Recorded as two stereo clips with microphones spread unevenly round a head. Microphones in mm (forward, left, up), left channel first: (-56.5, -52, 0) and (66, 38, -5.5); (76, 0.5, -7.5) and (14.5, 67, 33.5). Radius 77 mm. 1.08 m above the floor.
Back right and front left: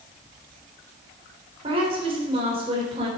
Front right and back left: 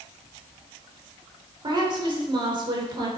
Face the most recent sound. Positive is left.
turn(degrees=95)